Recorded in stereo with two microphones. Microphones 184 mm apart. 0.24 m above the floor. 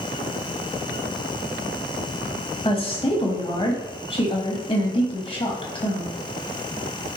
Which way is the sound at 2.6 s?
30° left (ahead or behind).